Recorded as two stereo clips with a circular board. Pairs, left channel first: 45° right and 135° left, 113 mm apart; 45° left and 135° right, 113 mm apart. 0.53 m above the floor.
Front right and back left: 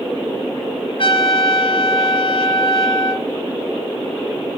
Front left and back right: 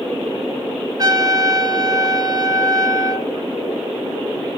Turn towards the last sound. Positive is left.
turn(degrees=-80)